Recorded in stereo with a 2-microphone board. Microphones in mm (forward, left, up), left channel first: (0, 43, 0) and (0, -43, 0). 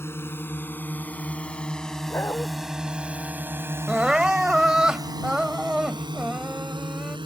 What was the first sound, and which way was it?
A drone, 30° left (ahead or behind).